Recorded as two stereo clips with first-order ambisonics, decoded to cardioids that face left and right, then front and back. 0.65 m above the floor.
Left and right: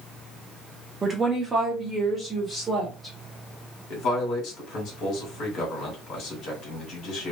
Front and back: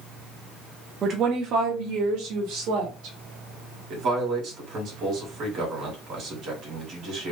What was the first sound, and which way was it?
A woman speaking, 150° right.